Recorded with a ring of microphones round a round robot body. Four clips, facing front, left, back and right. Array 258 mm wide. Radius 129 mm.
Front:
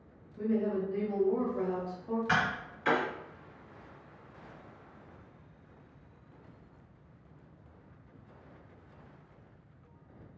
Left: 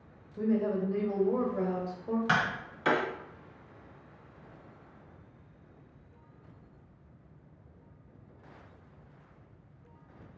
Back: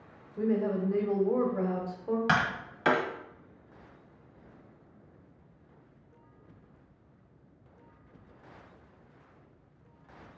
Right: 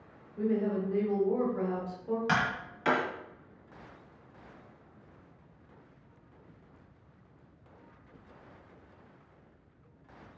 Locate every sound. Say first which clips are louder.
0.4 s a woman speaking: left 1 dB, back 2 dB; 160° left, 1.0 m
2.3 s tapping: left 1 dB, back 2 dB; 175° left, 1.1 m